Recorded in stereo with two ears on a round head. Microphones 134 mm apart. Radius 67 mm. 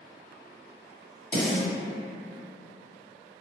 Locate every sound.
1.3 s a snare drum: 30° left (ahead or behind), 1.5 m